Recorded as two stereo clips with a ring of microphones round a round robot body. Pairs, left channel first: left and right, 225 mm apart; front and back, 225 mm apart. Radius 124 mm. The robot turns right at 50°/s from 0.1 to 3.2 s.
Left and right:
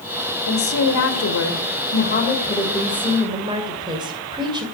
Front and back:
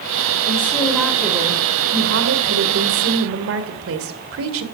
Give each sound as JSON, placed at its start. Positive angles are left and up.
{"t": 0.5, "sound": "a woman speaking", "azimuth_deg": 60, "distance_m": 2.0}